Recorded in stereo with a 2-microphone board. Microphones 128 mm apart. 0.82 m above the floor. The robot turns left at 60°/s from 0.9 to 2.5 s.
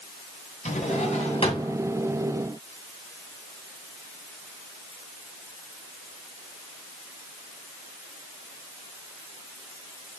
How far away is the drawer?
About 2 m.